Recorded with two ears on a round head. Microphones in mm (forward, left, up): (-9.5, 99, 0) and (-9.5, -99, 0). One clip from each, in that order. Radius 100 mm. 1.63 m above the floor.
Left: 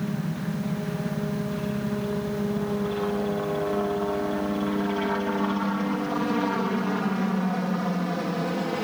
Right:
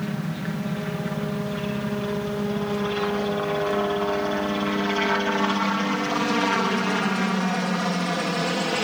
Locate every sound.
0.0 s a helicopter: 55° right (ahead or behind); by 8.8 s 70° right (ahead or behind)